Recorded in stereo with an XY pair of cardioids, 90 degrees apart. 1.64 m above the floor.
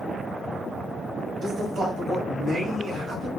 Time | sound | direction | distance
1.4 | a man speaking | 65° right | 1.1 m